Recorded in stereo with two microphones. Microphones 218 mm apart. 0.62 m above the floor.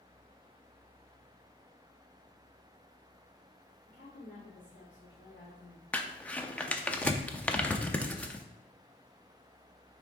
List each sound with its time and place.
3.9 s a woman speaking: 55° left (ahead or behind), 1.6 m
5.9 s crumpling: 5° left (ahead or behind), 0.5 m